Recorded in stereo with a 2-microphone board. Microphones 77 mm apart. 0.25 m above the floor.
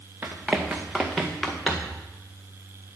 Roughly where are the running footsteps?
Right.